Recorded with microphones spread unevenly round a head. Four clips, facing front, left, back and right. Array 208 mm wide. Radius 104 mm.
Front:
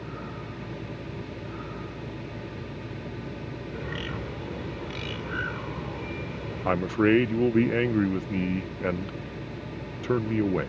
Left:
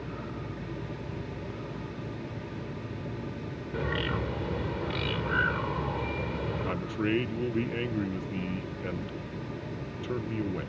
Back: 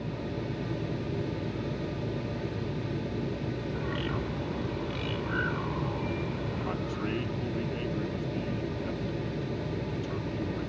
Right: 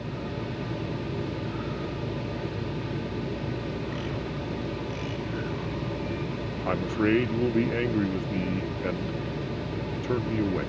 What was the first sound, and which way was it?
A bird, 70° left.